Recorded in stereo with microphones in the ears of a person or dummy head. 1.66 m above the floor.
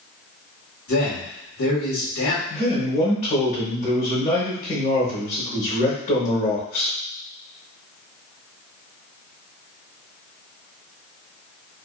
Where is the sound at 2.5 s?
45° left (ahead or behind), 1.0 m.